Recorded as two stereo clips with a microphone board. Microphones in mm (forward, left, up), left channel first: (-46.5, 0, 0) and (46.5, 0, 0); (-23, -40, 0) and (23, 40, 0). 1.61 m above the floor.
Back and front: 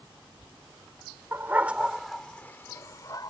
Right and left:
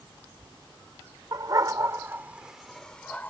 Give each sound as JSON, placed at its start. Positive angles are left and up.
{"t": 1.3, "sound": "a dog barking", "azimuth_deg": 50}